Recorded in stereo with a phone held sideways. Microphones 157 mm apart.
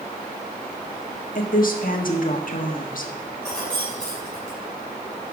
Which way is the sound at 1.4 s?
65° left (ahead or behind).